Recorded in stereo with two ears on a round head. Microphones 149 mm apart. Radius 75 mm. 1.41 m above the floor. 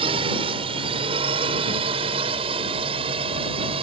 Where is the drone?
30° right (ahead or behind); by 3.8 s 35° right (ahead or behind).